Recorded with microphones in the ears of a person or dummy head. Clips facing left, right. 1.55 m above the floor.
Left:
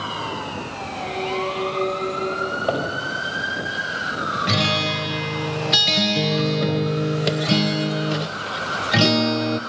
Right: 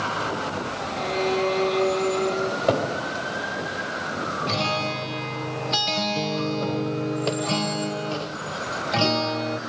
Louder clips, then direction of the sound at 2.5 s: Right 1 dB; 25° right (ahead or behind).